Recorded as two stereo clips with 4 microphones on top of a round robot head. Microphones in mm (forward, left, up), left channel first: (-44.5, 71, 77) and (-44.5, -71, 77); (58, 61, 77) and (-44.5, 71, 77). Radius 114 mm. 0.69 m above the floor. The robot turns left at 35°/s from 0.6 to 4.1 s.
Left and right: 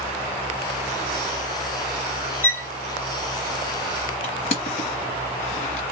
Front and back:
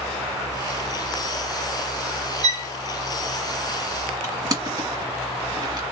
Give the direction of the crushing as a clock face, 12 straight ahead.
8 o'clock.